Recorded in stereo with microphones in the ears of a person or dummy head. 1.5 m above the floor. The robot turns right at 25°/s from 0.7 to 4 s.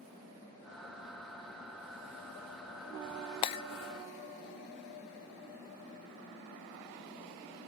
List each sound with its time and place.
3.4 s breaking glass: 30° left (ahead or behind), 0.6 m